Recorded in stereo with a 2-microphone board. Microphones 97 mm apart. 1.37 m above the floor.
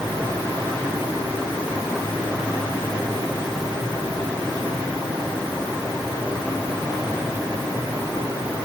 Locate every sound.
Only background noise.